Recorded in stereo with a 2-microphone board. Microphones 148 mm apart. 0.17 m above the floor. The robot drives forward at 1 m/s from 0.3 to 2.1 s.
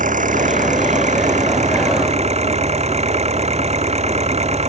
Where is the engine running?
60° right (ahead or behind); by 4.7 s 45° right (ahead or behind).